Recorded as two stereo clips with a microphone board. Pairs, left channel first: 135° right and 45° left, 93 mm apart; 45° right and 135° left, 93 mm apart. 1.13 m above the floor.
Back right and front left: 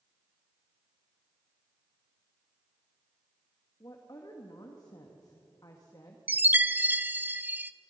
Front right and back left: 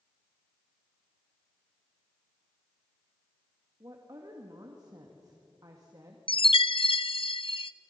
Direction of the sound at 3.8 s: Straight behind.